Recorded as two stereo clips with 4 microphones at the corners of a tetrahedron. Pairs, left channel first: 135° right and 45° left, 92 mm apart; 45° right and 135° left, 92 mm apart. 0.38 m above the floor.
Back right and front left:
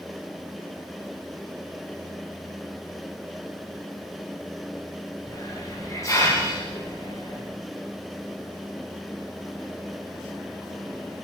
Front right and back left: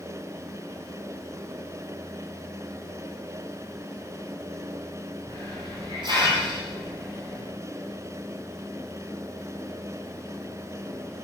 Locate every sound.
5.3 s a hiss: 170° left, 8.5 m